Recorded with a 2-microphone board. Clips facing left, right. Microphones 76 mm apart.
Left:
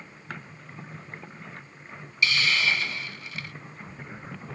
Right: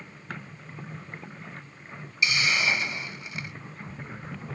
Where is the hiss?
20° right (ahead or behind).